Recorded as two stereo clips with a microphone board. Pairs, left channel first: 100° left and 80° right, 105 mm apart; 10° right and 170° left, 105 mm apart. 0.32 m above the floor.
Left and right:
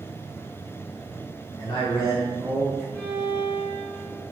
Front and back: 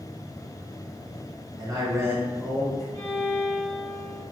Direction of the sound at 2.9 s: 20° left.